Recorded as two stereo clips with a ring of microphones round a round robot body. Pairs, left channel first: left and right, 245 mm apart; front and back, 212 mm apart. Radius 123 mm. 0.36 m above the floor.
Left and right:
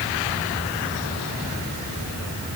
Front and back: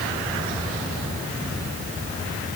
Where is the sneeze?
I don't hear a sneeze.